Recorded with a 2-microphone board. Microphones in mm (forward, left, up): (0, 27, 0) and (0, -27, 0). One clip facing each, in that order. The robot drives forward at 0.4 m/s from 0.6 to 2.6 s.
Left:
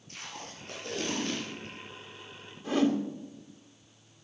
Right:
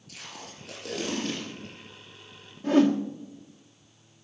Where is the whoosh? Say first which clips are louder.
Right 6 dB; 55° right (ahead or behind), 1.7 m.